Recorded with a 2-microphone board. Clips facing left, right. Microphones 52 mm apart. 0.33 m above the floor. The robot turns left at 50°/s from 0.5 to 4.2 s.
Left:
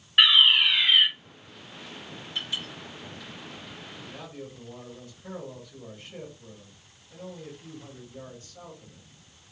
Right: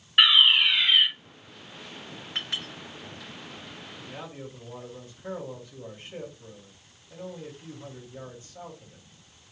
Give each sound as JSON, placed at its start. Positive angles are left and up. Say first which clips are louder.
{"t": 0.2, "sound": "a fire alarm", "louder": "even", "side_deg": 0, "distance_m": 2.0}
{"t": 2.4, "sound": "a clink", "louder": "even", "side_deg": -55, "distance_m": 2.0}
{"t": 4.1, "sound": "a man speaking", "louder": "right 3 dB", "side_deg": -20, "distance_m": 1.6}